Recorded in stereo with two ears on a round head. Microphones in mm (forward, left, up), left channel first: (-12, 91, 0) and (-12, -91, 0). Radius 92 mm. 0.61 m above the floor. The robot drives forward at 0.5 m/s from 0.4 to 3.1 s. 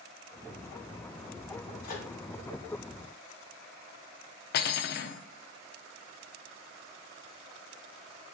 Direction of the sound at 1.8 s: 45° left (ahead or behind).